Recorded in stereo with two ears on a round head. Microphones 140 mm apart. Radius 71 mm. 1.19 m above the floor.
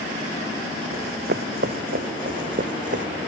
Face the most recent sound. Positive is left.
turn(degrees=-55)  # may be behind; listen again after turning